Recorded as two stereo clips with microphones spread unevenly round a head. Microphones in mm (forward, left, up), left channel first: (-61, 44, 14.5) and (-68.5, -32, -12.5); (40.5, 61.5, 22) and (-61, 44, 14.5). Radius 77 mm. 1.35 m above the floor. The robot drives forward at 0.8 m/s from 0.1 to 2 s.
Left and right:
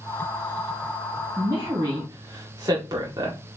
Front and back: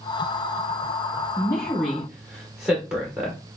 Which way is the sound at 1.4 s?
50° right.